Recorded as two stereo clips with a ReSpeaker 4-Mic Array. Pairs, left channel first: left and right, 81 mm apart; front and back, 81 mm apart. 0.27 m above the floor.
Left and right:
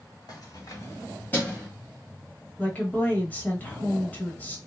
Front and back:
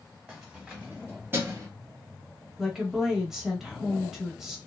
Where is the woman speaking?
105° left, 0.9 m.